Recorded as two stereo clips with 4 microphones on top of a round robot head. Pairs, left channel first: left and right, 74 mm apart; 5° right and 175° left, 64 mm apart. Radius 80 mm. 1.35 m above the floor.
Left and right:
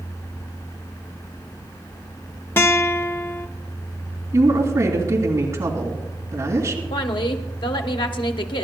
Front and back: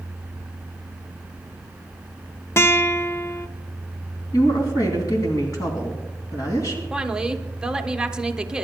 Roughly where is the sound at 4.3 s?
Ahead right.